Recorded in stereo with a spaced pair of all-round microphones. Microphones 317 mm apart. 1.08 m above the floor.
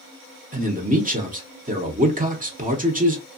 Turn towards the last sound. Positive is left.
turn(degrees=-25)  # may be behind; listen again after turning